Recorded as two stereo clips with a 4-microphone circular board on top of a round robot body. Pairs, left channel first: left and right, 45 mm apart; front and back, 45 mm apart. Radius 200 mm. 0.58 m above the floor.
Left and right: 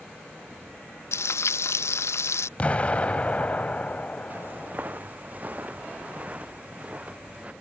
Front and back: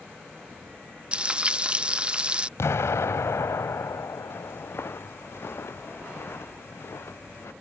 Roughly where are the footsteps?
Ahead right.